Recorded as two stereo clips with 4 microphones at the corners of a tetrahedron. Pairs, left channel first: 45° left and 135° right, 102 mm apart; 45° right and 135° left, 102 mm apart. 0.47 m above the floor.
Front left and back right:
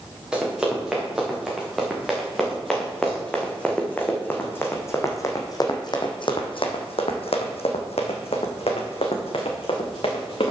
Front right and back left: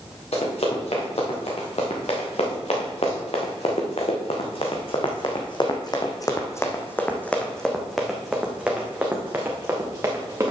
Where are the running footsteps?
55° right, 4 m; by 10.5 s 75° left, 3 m.